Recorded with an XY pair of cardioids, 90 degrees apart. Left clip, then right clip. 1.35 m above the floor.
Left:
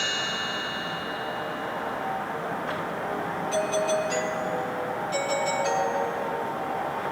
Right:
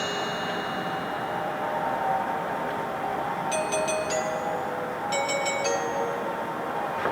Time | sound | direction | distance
3.5 | a doorbell | 65° right | 3.5 m